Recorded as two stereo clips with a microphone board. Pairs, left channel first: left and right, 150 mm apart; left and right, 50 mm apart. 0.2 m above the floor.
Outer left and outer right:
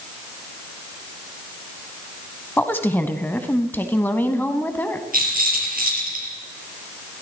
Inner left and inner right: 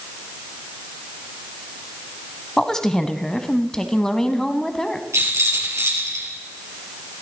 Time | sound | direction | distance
2.6 | a woman speaking | 15° left (ahead or behind) | 1.1 m
5.1 | a rattle | 70° right (ahead or behind) | 3.5 m